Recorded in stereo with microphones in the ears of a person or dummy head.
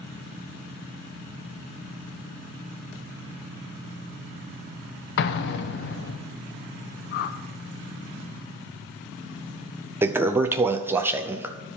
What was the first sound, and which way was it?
An explosion, 60° left (ahead or behind).